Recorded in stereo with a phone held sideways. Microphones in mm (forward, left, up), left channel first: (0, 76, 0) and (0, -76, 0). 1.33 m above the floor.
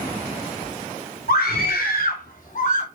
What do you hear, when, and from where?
1.3 s a scream: 85° left, 3.5 m; by 2.9 s 50° left (ahead or behind), 2.5 m